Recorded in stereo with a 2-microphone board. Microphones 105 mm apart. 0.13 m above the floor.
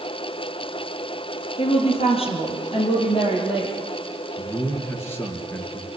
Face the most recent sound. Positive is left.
turn(degrees=25)  # may be behind; listen again after turning